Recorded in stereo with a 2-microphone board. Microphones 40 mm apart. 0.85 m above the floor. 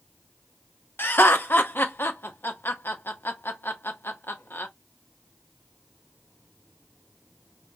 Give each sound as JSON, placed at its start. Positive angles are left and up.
{"t": 1.0, "sound": "laughter", "side_deg": 65, "distance_m": 0.9}